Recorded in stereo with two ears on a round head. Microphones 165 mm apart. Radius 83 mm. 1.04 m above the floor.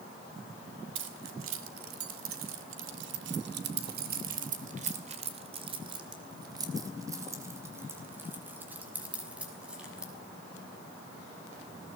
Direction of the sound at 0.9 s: 70° right (ahead or behind).